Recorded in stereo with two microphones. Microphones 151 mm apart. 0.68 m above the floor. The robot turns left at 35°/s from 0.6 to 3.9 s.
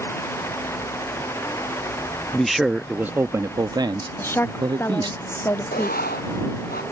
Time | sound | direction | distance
2.3 | a man speaking | 5° left | ?
4.2 | a woman speaking | 15° left (ahead or behind) | ?
5.7 | writing | 85° left | ?